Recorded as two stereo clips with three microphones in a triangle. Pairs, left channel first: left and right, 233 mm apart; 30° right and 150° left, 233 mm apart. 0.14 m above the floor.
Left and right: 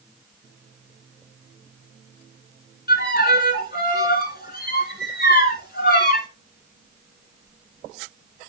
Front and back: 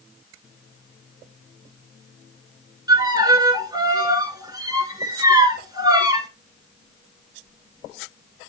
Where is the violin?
85° left, 1.2 m.